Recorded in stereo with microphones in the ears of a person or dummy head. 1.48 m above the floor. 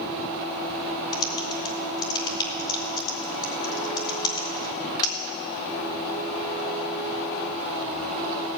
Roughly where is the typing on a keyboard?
Left.